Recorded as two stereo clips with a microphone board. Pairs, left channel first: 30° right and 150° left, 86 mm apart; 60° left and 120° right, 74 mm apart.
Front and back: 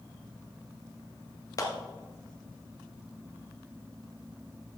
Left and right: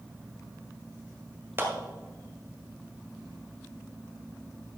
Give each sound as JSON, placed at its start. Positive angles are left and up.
{"t": 1.6, "sound": "a clap", "azimuth_deg": -70, "distance_m": 1.8}